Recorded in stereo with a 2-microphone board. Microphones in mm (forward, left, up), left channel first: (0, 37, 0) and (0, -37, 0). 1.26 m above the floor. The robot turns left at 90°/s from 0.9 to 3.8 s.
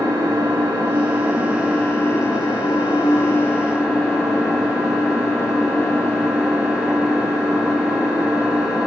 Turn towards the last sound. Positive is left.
turn(degrees=-10)